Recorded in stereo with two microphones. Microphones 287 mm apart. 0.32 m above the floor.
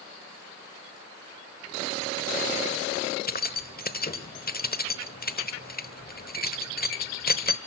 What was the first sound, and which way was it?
Keys jangling, 30° left (ahead or behind).